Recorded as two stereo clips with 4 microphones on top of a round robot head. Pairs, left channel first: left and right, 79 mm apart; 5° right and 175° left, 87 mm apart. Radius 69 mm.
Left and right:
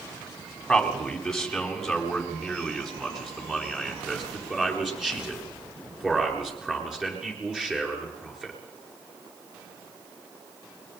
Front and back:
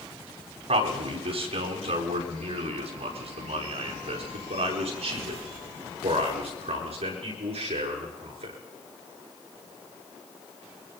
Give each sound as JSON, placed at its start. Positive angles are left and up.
{"t": 0.7, "sound": "a man speaking", "azimuth_deg": 175, "distance_m": 5.0}